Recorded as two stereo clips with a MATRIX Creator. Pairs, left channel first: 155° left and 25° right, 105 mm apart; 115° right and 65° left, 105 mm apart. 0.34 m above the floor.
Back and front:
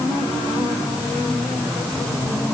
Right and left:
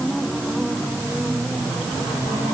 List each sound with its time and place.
Only background noise.